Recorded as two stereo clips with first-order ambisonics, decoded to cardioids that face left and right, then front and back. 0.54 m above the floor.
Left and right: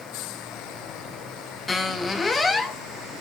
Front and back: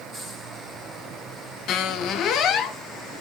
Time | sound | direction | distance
1.7 | a squeak | 20° left | 0.8 m